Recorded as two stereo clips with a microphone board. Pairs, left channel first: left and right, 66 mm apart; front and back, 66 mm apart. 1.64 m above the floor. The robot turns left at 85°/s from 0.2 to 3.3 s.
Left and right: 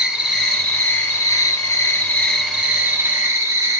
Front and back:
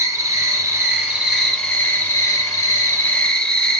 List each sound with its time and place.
0.0 s an insect: 165° right, 0.9 m; by 3.8 s 70° right, 0.9 m